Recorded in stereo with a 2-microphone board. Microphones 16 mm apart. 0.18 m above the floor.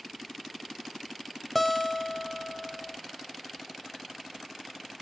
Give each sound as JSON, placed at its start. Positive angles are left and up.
{"t": 1.6, "sound": "a guitar", "side_deg": 10, "distance_m": 0.5}